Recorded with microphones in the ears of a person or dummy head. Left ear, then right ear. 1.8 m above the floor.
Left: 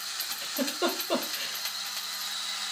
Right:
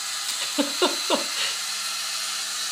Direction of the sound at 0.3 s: 40° right (ahead or behind).